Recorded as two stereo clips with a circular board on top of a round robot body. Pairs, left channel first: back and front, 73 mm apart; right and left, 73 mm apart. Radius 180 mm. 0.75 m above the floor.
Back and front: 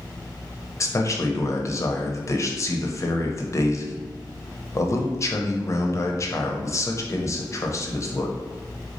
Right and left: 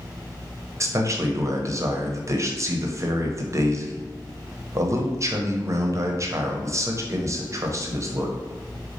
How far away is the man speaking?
About 1.0 m.